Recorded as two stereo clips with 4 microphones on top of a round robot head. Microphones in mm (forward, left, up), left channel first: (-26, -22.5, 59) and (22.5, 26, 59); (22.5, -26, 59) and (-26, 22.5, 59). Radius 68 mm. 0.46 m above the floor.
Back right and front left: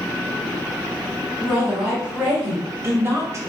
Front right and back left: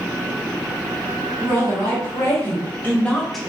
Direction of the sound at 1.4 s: 20° right.